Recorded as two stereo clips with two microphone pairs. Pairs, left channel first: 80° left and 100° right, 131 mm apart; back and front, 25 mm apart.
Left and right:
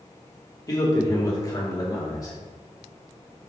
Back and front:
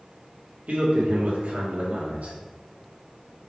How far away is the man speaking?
About 2 m.